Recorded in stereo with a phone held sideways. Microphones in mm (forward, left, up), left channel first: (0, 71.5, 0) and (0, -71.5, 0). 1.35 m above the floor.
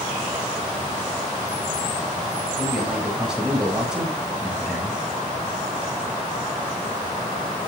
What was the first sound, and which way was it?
A man speaking, 5° right (ahead or behind).